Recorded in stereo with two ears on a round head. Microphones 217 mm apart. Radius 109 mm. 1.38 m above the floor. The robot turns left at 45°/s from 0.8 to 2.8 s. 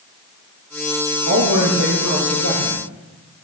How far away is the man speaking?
About 2 m.